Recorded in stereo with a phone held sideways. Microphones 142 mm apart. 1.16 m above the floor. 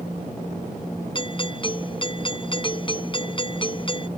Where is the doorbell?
35° left (ahead or behind).